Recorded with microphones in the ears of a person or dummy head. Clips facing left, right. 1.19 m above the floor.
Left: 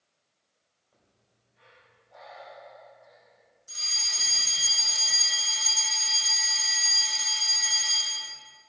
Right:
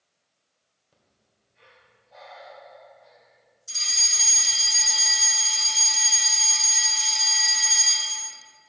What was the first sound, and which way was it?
Breathing, 45° right (ahead or behind).